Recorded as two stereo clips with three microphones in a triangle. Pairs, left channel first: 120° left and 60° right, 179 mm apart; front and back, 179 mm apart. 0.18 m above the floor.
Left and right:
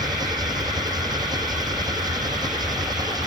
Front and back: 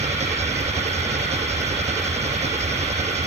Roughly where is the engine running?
Behind right.